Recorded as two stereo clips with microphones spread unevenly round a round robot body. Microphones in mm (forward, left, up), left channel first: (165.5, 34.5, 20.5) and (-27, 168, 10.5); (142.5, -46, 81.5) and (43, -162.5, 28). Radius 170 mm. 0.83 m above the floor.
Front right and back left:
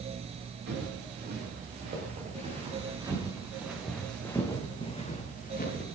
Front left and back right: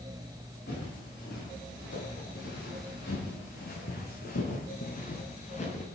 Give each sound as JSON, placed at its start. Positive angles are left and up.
{"t": 0.7, "sound": "footsteps", "azimuth_deg": 100, "distance_m": 7.0}